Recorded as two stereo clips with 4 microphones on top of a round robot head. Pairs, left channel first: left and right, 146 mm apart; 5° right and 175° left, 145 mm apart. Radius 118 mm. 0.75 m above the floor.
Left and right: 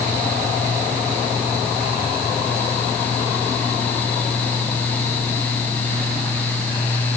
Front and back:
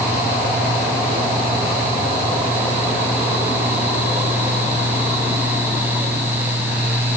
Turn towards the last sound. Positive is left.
No sound to turn to.